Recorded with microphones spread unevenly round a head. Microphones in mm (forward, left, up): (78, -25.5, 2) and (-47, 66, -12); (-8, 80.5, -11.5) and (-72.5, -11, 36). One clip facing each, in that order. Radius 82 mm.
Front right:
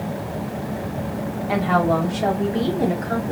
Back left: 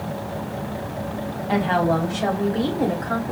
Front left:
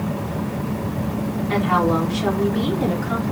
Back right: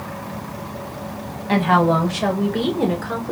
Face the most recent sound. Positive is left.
turn(degrees=-90)